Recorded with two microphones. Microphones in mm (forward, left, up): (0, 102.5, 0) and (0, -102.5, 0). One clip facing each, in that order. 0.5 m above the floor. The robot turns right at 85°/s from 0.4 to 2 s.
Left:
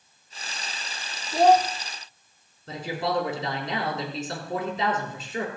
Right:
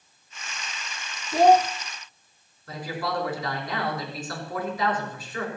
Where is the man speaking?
25° left (ahead or behind), 5 m.